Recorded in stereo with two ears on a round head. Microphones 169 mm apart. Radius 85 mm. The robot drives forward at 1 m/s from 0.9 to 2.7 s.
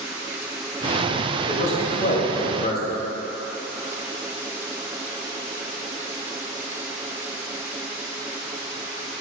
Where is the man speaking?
40° left (ahead or behind), 2.5 m; by 3.0 s 50° left (ahead or behind), 1.9 m.